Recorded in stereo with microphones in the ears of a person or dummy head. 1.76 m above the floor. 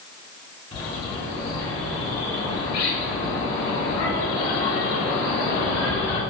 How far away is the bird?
About 1.1 m.